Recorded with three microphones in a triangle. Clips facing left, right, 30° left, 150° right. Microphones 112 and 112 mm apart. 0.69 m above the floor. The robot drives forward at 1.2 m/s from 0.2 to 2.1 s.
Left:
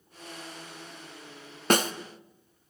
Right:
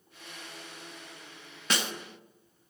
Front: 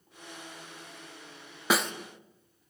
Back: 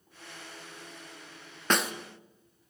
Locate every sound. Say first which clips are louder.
1.7 s a snare drum: left 9 dB, front 1 dB; 110° left, 0.6 m; by 1.9 s 135° left, 0.8 m